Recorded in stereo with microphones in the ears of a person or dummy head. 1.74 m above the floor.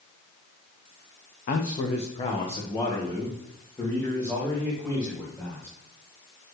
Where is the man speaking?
40° left (ahead or behind), 0.8 m; by 5.7 s 5° left (ahead or behind), 3.5 m.